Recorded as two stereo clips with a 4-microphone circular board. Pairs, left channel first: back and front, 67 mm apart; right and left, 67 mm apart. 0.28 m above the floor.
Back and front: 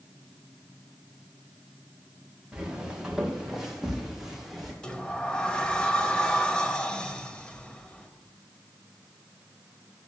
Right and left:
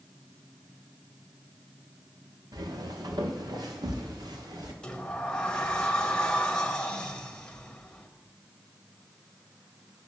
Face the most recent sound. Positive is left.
turn(degrees=-135)